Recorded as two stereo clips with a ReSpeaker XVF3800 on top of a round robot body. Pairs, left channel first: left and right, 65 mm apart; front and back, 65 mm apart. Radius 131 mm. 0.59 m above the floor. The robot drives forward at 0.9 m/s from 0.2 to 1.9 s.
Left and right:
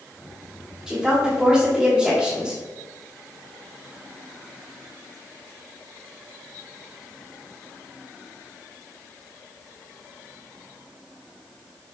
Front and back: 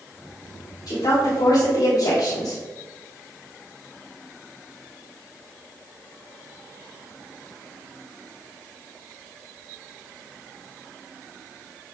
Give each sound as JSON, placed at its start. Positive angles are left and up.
{"t": 0.9, "sound": "a woman speaking", "azimuth_deg": -5, "distance_m": 3.0}